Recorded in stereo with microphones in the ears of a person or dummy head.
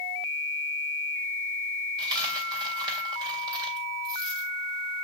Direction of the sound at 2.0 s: 20° right (ahead or behind).